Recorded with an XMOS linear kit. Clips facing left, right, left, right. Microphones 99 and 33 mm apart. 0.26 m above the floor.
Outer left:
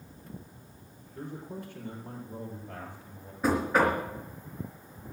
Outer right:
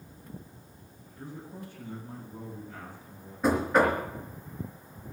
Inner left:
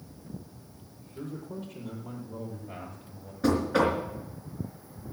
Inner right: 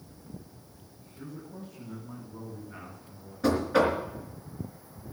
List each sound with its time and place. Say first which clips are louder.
1.1 s a man speaking: outer left 3 dB, inner left 4 dB; 70° left (ahead or behind), 8 m; by 3.3 s 80° left, 8 m
3.4 s knocking: outer right 1 dB, even; centre (ahead or behind), 3.5 m